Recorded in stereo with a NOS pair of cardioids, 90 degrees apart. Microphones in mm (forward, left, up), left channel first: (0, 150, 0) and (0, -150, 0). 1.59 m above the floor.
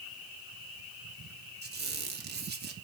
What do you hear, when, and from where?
1.6 s a squeak: 35° right, 3 m